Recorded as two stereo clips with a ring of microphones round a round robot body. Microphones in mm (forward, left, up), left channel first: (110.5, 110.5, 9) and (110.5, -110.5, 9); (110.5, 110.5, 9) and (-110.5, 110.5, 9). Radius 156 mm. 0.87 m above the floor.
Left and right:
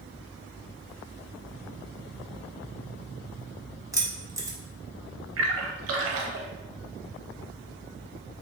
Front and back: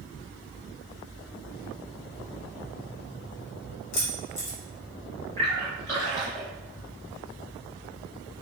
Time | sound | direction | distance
3.9 | keys jangling | 10° right | 0.9 m
5.4 | a splash | 80° right | 0.7 m